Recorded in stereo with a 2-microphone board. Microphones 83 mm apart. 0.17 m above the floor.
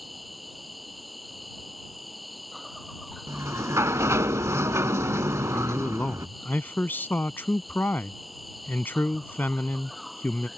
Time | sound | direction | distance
0.0 | an insect | centre (ahead or behind) | ?
3.3 | a sliding door | 35° right (ahead or behind) | ?
5.5 | a man speaking | 25° left (ahead or behind) | ?